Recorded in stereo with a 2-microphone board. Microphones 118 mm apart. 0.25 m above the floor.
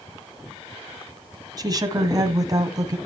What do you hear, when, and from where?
1.6 s a woman speaking: 35° right (ahead or behind), 1.5 m